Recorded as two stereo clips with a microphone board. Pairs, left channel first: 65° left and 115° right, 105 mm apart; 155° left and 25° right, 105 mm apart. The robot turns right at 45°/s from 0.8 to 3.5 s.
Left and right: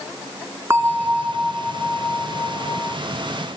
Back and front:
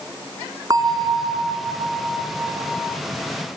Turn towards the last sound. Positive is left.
turn(degrees=65)